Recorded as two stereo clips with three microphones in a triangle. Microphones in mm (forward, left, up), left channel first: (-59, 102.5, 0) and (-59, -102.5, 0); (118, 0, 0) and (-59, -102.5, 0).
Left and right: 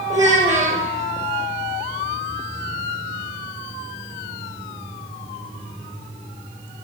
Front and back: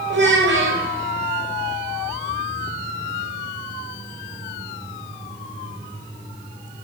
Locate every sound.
0.1 s a child speaking: 160° right, 1.6 m